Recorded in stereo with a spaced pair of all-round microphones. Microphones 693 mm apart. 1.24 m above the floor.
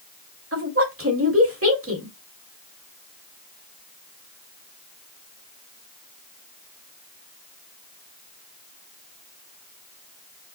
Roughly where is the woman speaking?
Centre.